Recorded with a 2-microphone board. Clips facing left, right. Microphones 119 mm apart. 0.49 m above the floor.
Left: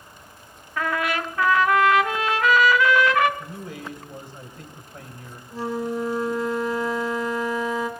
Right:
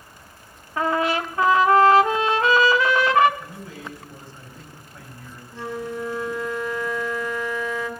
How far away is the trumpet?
About 0.8 m.